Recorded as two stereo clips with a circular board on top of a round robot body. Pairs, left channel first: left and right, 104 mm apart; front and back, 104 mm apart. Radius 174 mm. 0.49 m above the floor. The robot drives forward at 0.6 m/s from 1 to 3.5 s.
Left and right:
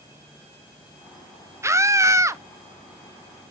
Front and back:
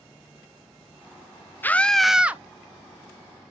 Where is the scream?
55° right, 0.9 m; by 2.4 s 125° right, 0.9 m.